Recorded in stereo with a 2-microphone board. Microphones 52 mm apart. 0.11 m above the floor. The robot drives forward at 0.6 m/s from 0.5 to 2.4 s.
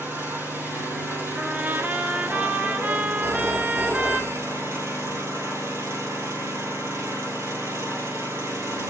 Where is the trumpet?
30° right (ahead or behind), 1.2 m.